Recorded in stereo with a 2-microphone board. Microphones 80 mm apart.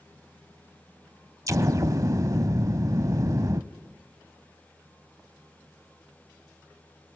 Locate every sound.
1.5 s an explosion: 45° right (ahead or behind), 0.7 m